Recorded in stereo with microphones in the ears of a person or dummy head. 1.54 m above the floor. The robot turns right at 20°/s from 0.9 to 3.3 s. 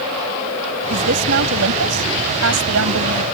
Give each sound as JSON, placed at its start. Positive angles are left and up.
{"t": 0.9, "sound": "a woman speaking", "azimuth_deg": -130}